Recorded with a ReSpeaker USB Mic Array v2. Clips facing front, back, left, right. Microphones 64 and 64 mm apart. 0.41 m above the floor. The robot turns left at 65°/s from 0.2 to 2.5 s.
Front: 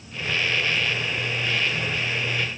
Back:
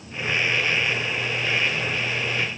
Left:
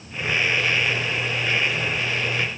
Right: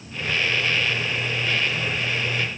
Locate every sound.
Only background noise.